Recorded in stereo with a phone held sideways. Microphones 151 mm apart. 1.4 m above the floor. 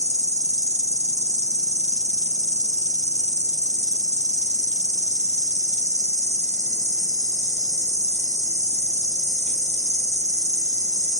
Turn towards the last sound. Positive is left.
turn(degrees=-50)  # may be behind; listen again after turning